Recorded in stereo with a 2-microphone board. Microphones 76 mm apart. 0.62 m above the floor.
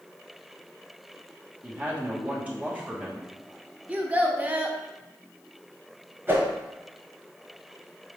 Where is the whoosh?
25° right (ahead or behind), 1.1 m.